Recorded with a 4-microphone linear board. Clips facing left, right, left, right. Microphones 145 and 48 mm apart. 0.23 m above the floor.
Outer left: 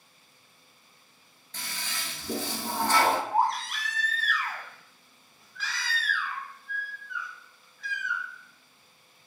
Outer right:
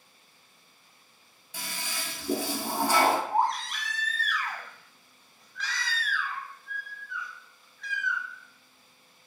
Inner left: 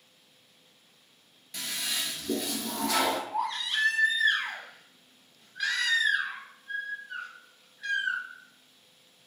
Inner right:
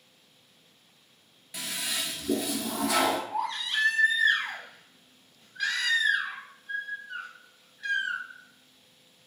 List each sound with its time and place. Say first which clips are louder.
1.5 s a toilet flushing: outer right 2 dB, even; 10° right (ahead or behind), 0.5 m
3.3 s a baby crying: outer left 1 dB, even; 5° left (ahead or behind), 0.6 m